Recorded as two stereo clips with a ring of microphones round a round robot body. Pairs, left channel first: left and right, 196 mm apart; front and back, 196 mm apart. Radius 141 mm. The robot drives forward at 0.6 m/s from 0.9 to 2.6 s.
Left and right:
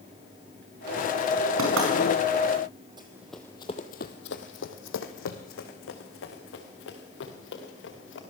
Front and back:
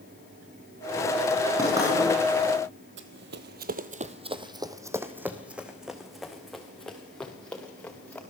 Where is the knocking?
100° right, 5 m; by 1.9 s 105° right, 5.5 m.